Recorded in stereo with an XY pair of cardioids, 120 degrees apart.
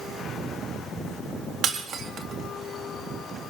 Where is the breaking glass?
55° right, 1.9 m.